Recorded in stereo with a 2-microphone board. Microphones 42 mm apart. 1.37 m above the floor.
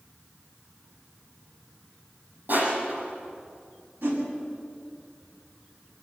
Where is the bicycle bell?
No bicycle bell in this recording.